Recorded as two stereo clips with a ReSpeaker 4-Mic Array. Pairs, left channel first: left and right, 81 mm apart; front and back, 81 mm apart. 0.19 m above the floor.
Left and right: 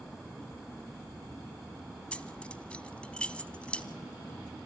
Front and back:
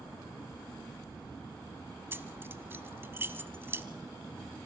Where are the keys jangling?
150° left, 1.1 m.